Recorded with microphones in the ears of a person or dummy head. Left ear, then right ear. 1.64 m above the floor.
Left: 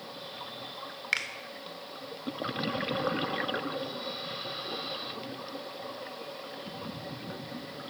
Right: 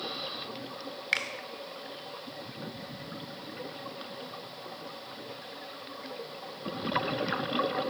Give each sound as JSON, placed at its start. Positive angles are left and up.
{"t": 1.1, "sound": "a finger snap", "side_deg": -5, "distance_m": 0.7}